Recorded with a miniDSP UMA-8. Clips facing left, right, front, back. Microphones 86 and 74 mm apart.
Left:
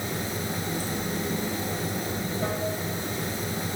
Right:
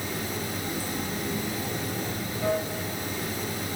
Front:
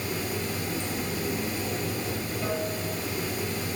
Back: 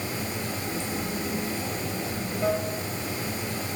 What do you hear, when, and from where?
0.0 s running water: 135° left, 0.8 m